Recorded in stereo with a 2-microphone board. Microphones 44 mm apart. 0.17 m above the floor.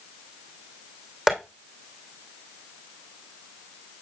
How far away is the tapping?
About 3 m.